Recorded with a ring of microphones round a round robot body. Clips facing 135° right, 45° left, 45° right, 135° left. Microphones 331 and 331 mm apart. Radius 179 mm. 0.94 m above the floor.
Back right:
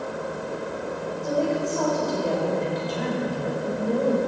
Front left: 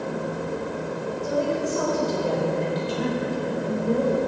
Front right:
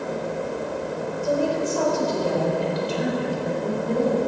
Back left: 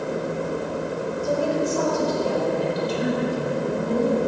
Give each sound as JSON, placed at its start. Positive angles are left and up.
{"t": 1.2, "sound": "a woman speaking", "azimuth_deg": -30, "distance_m": 4.0}